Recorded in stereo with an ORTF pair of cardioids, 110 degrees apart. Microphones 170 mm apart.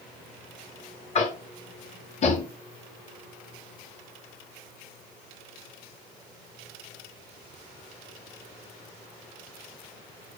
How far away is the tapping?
About 0.9 m.